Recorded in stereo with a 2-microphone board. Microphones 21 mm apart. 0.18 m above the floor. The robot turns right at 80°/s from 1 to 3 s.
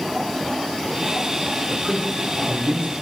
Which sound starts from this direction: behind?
A man speaking, at 1.7 s.